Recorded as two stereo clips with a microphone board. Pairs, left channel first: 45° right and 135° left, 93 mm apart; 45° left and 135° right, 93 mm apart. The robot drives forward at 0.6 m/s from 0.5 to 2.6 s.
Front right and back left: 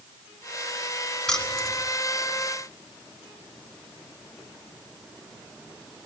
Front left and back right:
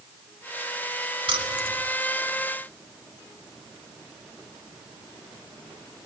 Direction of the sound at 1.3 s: 130° right.